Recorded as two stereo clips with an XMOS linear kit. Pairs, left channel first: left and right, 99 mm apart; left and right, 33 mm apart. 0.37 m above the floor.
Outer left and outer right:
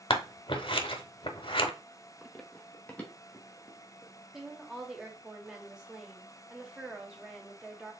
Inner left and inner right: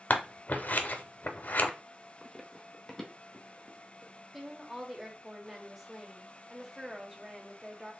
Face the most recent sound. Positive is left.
turn(degrees=-10)  # may be behind; listen again after turning